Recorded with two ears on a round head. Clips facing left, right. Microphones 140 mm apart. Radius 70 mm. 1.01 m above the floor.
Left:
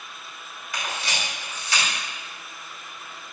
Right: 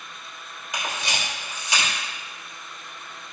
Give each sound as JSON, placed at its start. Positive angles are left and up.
{"t": 0.7, "sound": "a camera shutter", "side_deg": -20, "distance_m": 3.5}